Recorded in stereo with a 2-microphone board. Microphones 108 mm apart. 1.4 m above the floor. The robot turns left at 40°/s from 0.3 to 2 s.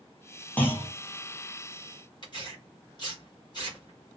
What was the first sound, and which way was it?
A clunk, 15° left (ahead or behind).